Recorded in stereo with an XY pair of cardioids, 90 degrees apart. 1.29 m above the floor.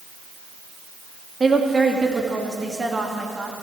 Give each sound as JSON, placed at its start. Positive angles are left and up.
{"t": 1.4, "sound": "a woman speaking", "azimuth_deg": -25, "distance_m": 2.5}